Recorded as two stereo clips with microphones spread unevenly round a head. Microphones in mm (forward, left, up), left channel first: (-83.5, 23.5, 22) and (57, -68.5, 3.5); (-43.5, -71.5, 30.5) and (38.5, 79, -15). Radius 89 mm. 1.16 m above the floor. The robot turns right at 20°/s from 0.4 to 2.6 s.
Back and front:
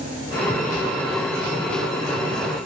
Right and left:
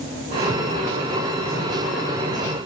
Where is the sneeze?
No sneeze in this recording.